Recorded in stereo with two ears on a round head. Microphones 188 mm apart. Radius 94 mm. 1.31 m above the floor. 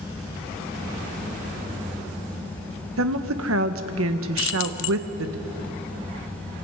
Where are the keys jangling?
65° left (ahead or behind), 1.0 m.